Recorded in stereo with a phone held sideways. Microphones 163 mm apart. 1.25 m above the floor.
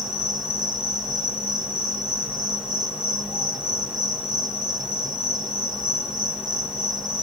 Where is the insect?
5° right (ahead or behind), 2 m.